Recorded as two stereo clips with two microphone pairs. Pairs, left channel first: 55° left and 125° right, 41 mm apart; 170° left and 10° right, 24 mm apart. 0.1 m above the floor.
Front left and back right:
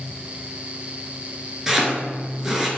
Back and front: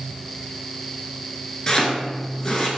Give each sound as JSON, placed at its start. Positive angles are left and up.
{"t": 1.7, "sound": "chopping", "azimuth_deg": 165, "distance_m": 0.6}